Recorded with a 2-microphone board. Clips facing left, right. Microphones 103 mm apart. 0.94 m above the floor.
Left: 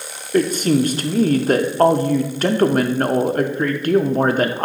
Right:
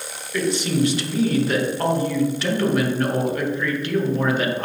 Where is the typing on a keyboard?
No typing on a keyboard in this recording.